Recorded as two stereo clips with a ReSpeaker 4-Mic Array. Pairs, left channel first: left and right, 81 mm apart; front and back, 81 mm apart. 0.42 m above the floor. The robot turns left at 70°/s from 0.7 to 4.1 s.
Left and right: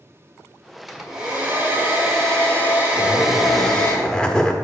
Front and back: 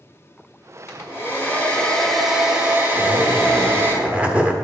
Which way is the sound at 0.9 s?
Straight ahead.